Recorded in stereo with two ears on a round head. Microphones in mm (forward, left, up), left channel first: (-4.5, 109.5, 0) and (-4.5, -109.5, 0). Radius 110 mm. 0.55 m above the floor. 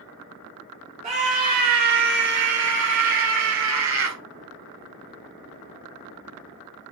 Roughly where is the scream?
Right.